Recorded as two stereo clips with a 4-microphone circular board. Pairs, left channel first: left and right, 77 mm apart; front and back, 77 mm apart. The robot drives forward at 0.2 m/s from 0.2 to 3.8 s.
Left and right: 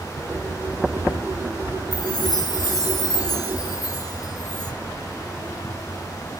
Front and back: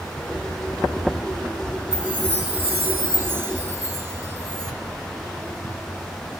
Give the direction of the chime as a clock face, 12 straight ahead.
8 o'clock.